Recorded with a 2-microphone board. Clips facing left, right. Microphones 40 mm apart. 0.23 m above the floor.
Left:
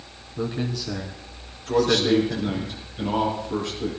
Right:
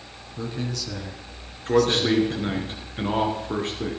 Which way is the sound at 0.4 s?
15° left (ahead or behind).